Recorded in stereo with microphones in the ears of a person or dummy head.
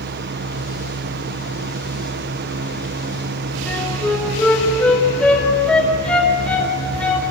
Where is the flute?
Centre (ahead or behind), 4.5 m.